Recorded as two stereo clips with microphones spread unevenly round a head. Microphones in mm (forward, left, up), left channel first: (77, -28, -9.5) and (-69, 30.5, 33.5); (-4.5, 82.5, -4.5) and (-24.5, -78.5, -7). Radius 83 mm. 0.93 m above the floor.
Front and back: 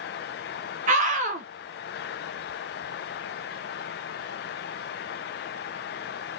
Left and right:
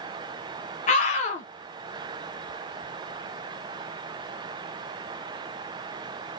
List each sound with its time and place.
0.9 s a scream: 115° left, 0.8 m